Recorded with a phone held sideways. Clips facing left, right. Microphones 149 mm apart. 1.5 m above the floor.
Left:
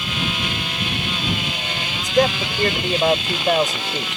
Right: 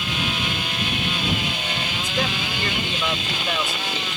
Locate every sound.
2.0 s a man speaking: 45° left (ahead or behind)